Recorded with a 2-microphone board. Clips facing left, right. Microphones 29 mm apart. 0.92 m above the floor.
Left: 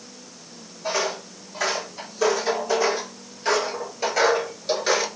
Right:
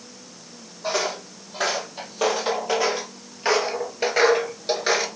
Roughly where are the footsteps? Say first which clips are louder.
Even; right.